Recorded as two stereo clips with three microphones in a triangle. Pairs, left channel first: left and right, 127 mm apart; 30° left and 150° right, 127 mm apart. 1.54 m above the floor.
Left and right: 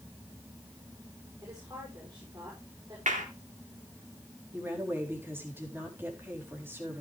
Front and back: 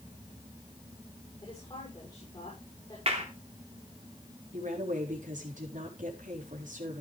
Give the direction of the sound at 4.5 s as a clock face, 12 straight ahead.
5 o'clock.